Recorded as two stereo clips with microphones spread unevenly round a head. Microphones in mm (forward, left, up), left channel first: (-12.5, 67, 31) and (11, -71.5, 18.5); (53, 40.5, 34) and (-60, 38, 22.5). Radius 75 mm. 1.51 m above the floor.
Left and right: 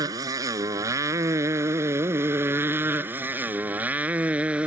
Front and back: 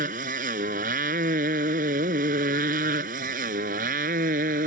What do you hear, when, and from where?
0.0 s a motorcycle: 150° right; by 4.7 s 165° right